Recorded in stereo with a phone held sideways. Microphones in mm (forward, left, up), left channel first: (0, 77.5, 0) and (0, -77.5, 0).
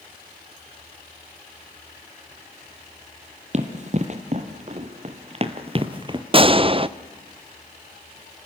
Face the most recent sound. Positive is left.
turn(degrees=-35)  # may be behind; listen again after turning